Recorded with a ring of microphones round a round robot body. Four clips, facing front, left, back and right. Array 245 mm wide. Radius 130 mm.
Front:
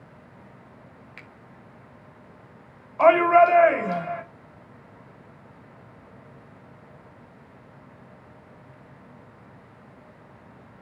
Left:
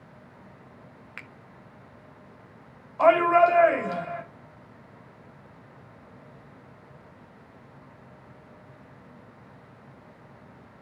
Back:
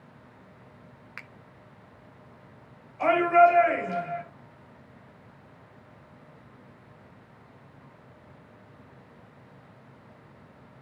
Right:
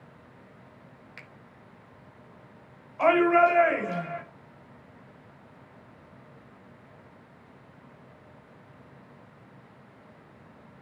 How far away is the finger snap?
About 0.9 m.